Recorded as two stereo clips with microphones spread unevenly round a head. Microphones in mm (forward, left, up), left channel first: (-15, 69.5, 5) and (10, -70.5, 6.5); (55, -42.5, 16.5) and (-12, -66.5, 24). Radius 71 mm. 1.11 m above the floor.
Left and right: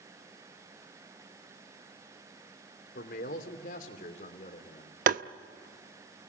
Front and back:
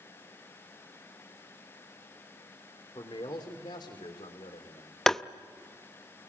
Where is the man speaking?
75° left, 3 m; by 5.0 s 55° left, 3.5 m.